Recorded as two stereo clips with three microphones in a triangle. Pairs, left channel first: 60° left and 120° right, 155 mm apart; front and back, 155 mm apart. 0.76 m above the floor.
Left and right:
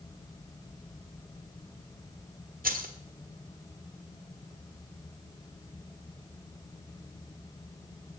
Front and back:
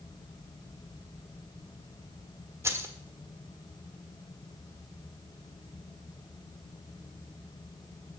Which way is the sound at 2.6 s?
110° right.